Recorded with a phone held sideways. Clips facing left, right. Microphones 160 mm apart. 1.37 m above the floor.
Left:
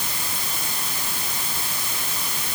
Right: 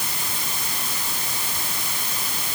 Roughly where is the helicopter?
I don't hear a helicopter.